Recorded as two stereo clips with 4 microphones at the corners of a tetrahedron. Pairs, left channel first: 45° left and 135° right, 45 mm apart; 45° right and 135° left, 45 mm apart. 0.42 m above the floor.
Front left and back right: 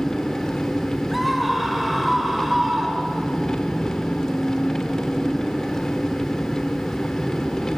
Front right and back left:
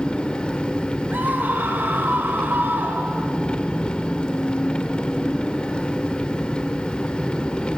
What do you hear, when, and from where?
0.0 s an engine running: 10° right, 1.2 m
1.1 s a scream: 135° left, 2 m